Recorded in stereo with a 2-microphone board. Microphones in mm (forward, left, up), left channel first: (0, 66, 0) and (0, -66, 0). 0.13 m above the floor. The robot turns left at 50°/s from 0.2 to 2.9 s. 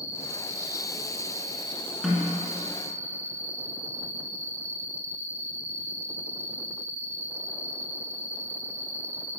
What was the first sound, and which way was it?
An insect, 35° left.